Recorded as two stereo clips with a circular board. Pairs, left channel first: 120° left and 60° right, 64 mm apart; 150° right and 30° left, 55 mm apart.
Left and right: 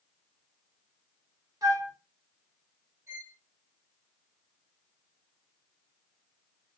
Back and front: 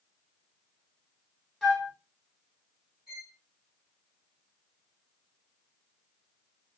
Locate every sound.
1.6 s a flute: 60° right, 1.3 m
3.1 s a violin: 50° right, 2 m